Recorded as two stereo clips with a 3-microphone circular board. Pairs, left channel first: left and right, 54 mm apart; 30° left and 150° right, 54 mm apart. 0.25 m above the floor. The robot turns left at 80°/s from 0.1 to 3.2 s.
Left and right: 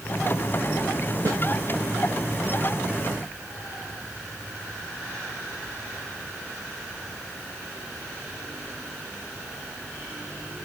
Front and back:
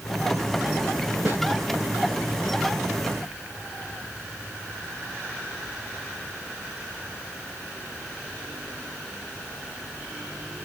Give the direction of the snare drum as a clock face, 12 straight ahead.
3 o'clock.